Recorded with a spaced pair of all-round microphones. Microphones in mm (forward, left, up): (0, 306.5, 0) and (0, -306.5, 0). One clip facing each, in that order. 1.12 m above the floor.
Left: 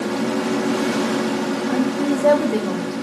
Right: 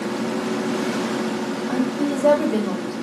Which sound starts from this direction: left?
A woman speaking, at 1.7 s.